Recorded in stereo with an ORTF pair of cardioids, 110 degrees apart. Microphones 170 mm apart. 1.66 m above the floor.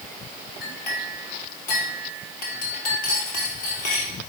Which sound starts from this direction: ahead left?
A clink, at 0.6 s.